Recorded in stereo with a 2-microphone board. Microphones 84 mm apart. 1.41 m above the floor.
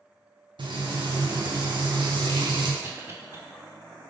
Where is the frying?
70° right (ahead or behind), 0.6 m.